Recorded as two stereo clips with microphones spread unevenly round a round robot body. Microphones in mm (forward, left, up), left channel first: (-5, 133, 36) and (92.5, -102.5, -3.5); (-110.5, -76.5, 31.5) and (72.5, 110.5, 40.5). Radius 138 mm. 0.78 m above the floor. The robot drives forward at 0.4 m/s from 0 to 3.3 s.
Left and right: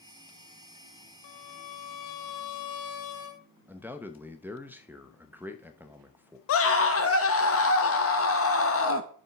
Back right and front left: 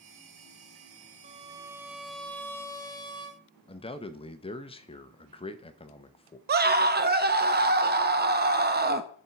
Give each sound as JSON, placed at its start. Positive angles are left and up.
{"t": 1.2, "sound": "a violin", "azimuth_deg": 110, "distance_m": 0.6}
{"t": 3.7, "sound": "a man speaking", "azimuth_deg": -115, "distance_m": 0.7}
{"t": 6.5, "sound": "a scream", "azimuth_deg": 90, "distance_m": 0.9}